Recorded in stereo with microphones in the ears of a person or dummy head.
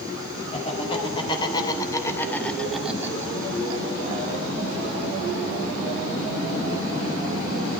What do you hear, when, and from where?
0.5 s laughter: 35° left (ahead or behind), 5 m; by 4.6 s 60° right (ahead or behind), 2.5 m